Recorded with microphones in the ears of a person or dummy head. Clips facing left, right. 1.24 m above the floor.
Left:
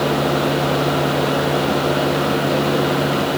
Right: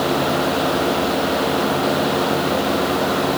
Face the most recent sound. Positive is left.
No sound to turn to.